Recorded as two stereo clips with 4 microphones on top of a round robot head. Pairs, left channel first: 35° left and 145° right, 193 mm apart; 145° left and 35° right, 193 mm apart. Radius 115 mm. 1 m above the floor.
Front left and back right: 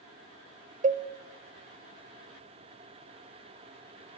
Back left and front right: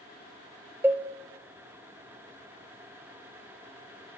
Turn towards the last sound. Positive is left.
turn(degrees=-115)